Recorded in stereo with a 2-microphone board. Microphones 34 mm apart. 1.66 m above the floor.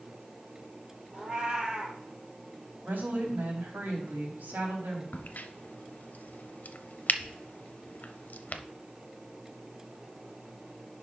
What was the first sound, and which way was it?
A cat meowing, 25° right (ahead or behind).